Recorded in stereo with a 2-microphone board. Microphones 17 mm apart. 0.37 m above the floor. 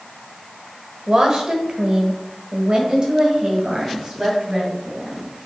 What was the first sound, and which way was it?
A woman speaking, 40° right (ahead or behind).